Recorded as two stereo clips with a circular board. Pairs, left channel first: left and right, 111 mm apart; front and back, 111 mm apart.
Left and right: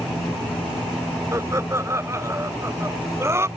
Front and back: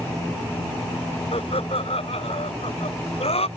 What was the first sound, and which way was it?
Laughter, 30° right.